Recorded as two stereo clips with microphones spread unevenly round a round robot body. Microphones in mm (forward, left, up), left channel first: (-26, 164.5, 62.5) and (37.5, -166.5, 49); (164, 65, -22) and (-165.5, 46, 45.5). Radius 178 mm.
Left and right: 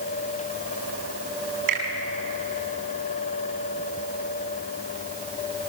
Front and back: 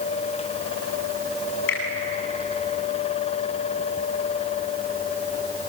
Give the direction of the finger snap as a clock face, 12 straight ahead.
2 o'clock.